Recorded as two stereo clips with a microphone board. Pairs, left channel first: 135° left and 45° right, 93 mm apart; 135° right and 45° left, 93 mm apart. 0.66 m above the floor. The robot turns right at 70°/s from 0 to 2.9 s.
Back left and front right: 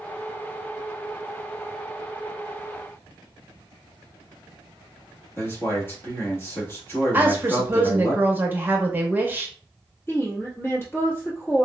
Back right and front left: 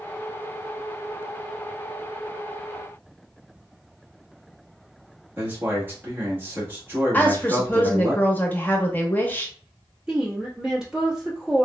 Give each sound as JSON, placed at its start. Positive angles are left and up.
{"t": 5.4, "sound": "a man speaking", "azimuth_deg": 95, "distance_m": 1.0}
{"t": 7.1, "sound": "a woman speaking", "azimuth_deg": -90, "distance_m": 0.7}
{"t": 10.1, "sound": "a woman speaking", "azimuth_deg": 115, "distance_m": 1.1}